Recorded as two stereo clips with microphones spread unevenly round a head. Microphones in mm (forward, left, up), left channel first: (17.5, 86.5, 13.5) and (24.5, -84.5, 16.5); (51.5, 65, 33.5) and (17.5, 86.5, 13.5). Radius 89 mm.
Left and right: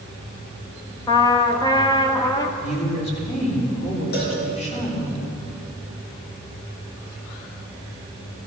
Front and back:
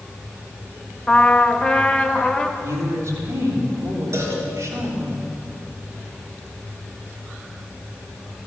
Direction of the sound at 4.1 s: 130° left.